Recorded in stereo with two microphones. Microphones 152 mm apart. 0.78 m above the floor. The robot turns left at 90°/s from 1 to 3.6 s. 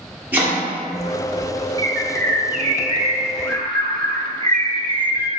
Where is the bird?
45° right, 0.7 m; by 5.3 s 150° left, 0.7 m.